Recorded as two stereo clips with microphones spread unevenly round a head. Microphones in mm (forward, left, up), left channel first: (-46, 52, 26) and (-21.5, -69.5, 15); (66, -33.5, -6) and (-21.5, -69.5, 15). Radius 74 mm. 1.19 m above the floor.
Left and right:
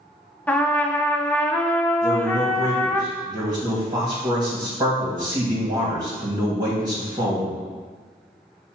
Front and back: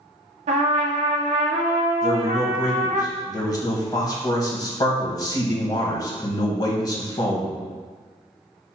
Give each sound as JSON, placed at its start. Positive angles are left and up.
{"t": 0.5, "sound": "a trumpet", "azimuth_deg": 180, "distance_m": 0.7}
{"t": 2.0, "sound": "a man speaking", "azimuth_deg": -20, "distance_m": 1.3}